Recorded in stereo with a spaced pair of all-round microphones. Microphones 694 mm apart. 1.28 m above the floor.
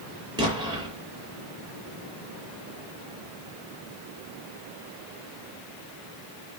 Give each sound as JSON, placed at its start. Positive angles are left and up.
{"t": 0.4, "sound": "an explosion", "side_deg": -5, "distance_m": 6.0}